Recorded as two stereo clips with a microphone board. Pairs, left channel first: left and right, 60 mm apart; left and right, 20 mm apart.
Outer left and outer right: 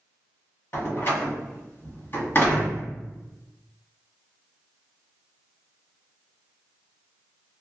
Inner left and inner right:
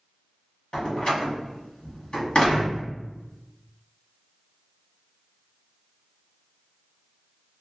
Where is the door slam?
40° left (ahead or behind), 1.3 m.